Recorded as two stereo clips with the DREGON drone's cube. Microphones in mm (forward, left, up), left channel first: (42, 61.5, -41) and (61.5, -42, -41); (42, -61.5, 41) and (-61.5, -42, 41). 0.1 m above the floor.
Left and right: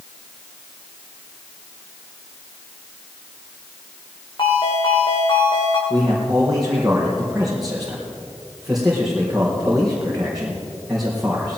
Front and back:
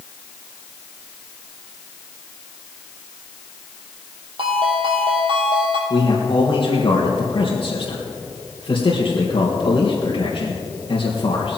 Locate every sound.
4.4 s a ringtone: 135° left, 2.5 m
5.9 s a man speaking: 10° left, 3.5 m